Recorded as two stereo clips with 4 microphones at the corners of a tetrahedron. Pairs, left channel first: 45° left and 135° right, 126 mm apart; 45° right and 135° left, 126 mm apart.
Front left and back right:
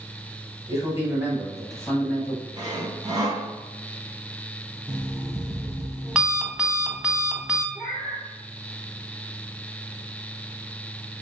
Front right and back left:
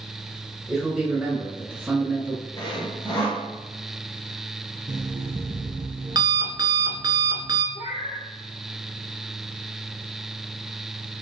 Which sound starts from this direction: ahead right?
A cat meowing, at 7.8 s.